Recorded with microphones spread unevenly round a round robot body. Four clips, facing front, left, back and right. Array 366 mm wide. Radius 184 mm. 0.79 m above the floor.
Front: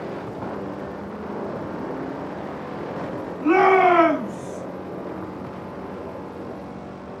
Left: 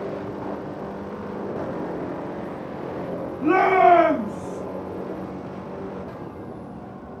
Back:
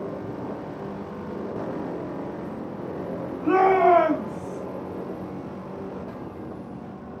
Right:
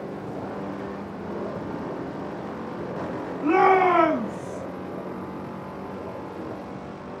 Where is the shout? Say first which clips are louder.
Left 2 dB, front 2 dB; 110° left, 6.5 m; by 4.6 s 115° left, 7 m.